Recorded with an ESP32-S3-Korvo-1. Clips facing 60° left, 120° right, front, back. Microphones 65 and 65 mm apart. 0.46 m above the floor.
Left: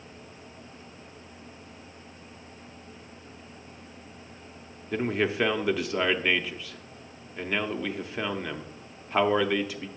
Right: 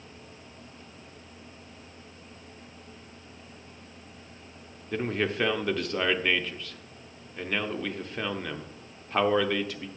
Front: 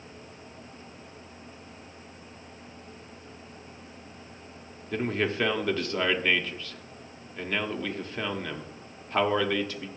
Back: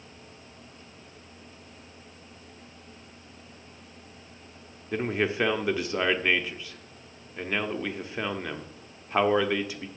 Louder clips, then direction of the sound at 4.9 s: Left 2 dB, back 1 dB; 135° left.